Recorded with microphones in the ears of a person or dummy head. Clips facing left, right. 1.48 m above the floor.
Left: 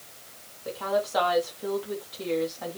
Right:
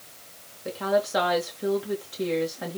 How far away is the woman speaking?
About 3 m.